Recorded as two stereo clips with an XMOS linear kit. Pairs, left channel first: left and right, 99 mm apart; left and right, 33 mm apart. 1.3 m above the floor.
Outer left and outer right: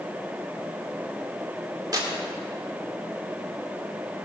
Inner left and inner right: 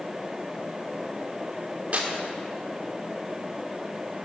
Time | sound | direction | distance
1.9 | tearing paper | 40° right (ahead or behind) | 1.9 m